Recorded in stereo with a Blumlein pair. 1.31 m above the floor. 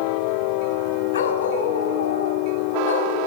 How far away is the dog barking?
About 4 m.